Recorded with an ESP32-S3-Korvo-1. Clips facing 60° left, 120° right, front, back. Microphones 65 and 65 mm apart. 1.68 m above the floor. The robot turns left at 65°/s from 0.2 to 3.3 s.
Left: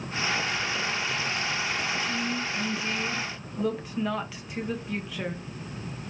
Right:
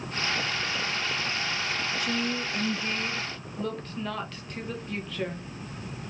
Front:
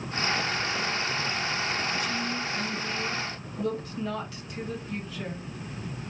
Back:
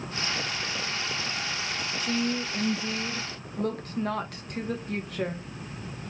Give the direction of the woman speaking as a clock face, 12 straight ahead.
4 o'clock.